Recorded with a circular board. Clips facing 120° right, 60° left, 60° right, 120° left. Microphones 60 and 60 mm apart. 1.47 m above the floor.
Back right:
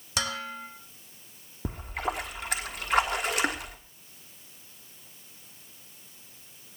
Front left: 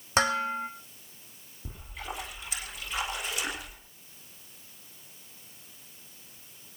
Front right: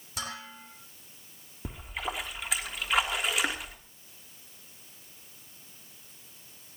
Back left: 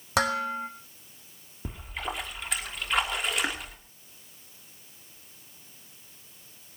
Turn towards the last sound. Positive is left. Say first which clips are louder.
# back right 8 dB, even
turn(degrees=-150)